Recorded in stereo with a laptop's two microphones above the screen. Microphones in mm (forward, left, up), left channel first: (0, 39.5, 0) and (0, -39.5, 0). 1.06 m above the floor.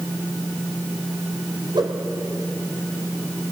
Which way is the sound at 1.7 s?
85° right.